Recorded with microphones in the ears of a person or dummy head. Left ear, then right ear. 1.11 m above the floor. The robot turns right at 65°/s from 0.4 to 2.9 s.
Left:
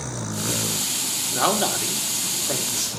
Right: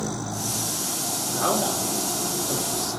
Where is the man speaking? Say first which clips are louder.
Left 3 dB; 35° left, 3 m; by 2.9 s 140° left, 3 m.